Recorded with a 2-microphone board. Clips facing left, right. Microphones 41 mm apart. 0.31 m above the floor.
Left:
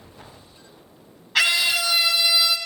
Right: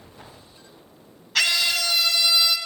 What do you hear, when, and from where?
1.4 s a scream: 20° left (ahead or behind), 2.5 m; by 2.6 s 10° left (ahead or behind), 2 m